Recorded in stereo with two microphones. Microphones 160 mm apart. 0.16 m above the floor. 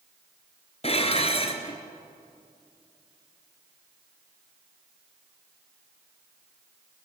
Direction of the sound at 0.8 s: 40° left (ahead or behind).